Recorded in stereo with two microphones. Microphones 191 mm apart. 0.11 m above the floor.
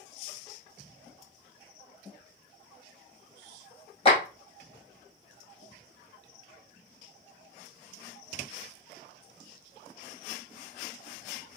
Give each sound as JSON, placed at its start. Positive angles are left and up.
{"t": 4.0, "sound": "a clap", "side_deg": 30, "distance_m": 1.6}